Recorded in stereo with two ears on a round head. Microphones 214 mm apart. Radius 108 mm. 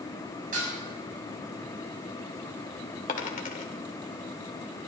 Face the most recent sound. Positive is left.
turn(degrees=35)  # may be behind; listen again after turning